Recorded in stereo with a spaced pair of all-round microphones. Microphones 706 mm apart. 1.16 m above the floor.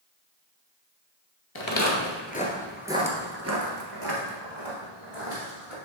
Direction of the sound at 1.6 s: 35° left (ahead or behind).